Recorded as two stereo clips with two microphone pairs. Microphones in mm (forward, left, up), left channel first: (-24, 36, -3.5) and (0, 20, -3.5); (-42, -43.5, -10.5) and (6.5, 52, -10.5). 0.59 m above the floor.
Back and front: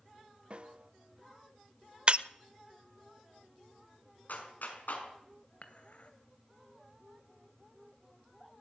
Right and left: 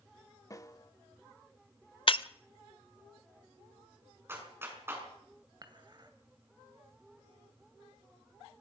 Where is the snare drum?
70° right, 0.9 m.